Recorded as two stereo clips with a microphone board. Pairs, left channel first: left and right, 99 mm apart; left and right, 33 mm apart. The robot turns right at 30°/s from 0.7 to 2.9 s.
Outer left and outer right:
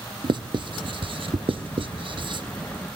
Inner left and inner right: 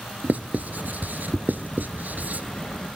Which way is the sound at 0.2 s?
55° right (ahead or behind).